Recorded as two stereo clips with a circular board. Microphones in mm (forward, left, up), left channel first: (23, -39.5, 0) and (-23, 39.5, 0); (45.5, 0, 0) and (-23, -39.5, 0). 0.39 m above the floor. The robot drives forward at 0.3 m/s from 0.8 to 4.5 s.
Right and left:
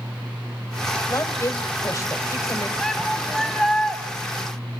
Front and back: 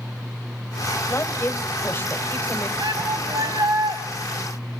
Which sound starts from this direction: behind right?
A shout, at 2.8 s.